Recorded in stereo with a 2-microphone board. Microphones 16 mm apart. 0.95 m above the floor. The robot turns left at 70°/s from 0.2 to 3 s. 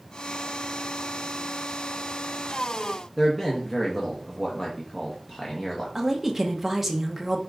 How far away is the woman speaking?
About 0.8 m.